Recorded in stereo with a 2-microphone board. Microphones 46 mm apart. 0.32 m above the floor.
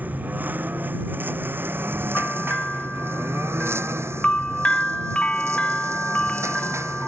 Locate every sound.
0.0 s a lawn mower: 40° right (ahead or behind); by 7.1 s 85° right
2.1 s a bell: 20° left (ahead or behind)